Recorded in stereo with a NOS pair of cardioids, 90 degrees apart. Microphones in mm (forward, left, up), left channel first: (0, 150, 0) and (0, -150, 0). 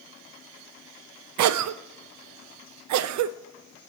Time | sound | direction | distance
1.4 | a cough | 65° right | 0.5 m